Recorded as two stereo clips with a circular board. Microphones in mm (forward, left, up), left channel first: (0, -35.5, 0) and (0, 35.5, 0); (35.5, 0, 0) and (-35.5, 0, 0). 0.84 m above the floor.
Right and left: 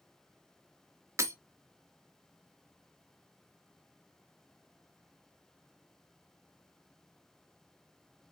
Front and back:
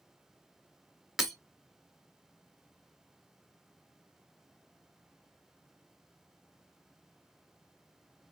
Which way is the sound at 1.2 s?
95° left.